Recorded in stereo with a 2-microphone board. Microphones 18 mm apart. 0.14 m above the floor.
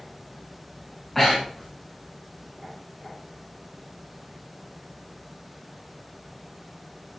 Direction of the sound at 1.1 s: 5° right (ahead or behind).